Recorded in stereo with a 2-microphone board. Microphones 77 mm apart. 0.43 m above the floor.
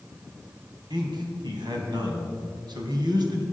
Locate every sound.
0.9 s a man speaking: 70° right (ahead or behind), 3 m